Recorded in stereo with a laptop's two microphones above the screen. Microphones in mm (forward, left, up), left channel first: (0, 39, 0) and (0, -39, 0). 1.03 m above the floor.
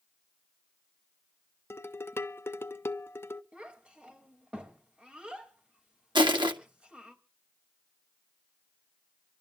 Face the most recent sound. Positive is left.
turn(degrees=-85)